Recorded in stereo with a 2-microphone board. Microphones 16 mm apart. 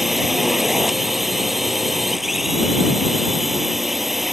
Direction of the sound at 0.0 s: 15° right (ahead or behind).